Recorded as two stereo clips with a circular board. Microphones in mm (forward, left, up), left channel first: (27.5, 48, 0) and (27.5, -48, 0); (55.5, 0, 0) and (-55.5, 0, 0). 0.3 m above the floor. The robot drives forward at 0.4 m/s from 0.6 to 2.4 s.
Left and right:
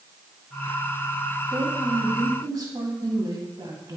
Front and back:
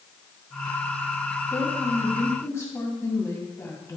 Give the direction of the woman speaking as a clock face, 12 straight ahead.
2 o'clock.